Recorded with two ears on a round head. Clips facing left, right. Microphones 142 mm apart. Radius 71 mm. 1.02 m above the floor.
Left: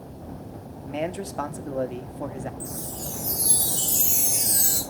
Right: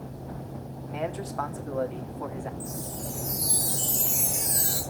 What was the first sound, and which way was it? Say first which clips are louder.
A man speaking: left 3 dB; 30° left (ahead or behind).